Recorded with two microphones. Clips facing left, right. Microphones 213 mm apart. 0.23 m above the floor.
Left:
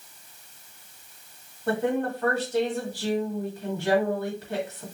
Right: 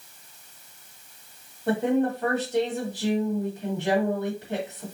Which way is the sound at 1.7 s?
20° right (ahead or behind).